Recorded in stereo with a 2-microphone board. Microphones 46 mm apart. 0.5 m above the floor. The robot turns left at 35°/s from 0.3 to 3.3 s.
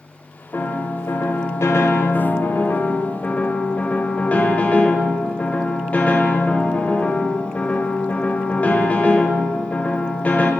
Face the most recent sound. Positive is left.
turn(degrees=30)